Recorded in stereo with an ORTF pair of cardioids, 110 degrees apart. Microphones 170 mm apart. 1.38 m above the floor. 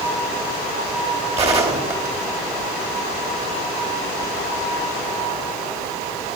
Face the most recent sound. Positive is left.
turn(degrees=-40)